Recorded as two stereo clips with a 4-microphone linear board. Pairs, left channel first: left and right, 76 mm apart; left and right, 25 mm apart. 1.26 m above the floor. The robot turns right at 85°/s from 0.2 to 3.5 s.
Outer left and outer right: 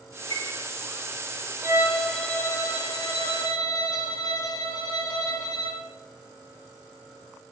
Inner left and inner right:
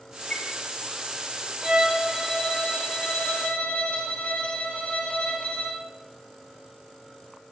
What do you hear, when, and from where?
0.3 s a chime: 60° left (ahead or behind), 7.5 m; by 0.5 s 45° left (ahead or behind), 7.5 m
1.6 s a violin: 35° right, 4.5 m; by 5.8 s 125° left, 4.5 m